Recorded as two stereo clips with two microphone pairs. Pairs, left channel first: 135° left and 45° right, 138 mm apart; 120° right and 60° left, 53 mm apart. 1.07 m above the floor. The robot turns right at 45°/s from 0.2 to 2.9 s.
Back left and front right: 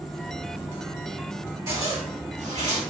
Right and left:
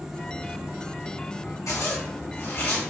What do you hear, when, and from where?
1.7 s a zipper: 115° right, 1.3 m; by 2.8 s 60° right, 1.3 m